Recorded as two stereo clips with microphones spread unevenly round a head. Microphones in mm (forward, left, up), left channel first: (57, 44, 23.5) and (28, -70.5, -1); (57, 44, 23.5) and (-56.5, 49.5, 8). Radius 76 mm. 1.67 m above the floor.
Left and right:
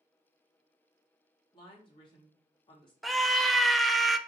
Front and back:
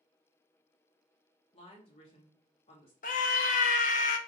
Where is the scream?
10° right, 0.6 m.